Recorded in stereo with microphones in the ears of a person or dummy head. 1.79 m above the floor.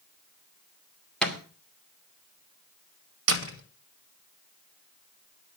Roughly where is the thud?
Centre.